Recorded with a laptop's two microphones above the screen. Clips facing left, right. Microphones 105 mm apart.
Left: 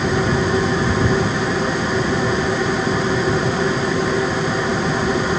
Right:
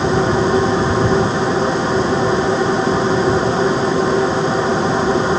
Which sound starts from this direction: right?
A machine running, at 0.0 s.